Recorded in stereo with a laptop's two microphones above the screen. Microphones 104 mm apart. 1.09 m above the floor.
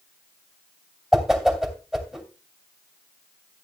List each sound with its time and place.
1.1 s a whoosh: 5° right (ahead or behind), 3 m